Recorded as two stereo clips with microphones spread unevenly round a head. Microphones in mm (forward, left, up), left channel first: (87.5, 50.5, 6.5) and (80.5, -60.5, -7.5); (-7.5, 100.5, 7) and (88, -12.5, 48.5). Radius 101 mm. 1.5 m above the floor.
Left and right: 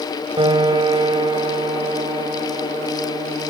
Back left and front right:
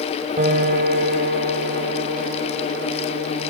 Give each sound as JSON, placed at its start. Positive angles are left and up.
{"t": 0.4, "sound": "a piano", "azimuth_deg": -50, "distance_m": 2.5}